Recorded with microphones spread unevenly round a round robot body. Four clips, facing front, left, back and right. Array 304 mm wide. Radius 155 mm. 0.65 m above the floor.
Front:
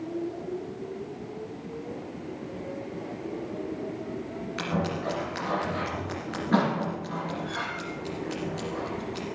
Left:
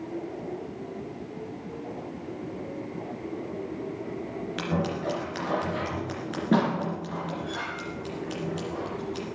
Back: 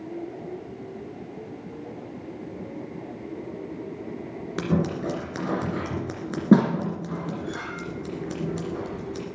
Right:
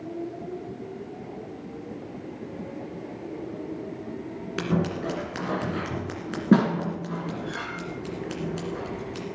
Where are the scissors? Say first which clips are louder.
Right 3 dB, back 5 dB; 155° right, 2 m.